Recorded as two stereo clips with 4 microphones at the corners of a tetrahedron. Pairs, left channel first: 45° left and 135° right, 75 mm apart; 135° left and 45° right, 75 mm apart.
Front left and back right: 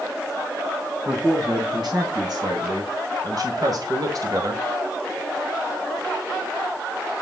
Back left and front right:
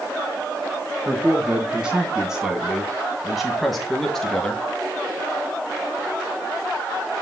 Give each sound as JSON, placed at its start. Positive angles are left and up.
{"t": 1.1, "sound": "a man speaking", "azimuth_deg": -120, "distance_m": 3.0}